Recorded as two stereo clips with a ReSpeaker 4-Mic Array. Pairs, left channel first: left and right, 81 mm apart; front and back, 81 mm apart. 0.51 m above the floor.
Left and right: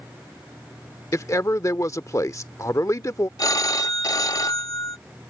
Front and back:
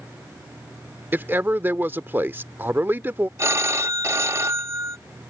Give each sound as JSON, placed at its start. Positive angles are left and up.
{"t": 1.1, "sound": "a man speaking", "azimuth_deg": 125}
{"t": 3.4, "sound": "a phone ringing", "azimuth_deg": 130}